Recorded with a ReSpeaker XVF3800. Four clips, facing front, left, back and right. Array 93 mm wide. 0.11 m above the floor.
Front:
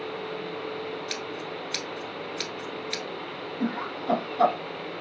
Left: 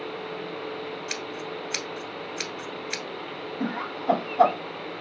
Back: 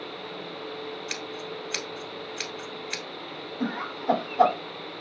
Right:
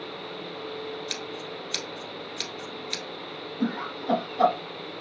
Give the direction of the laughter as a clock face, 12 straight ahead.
8 o'clock.